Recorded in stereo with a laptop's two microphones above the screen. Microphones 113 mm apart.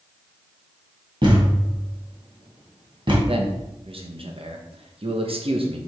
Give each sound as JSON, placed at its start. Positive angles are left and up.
{"t": 1.2, "sound": "a thud", "side_deg": -50, "distance_m": 2.5}
{"t": 3.3, "sound": "a man speaking", "side_deg": -55, "distance_m": 1.1}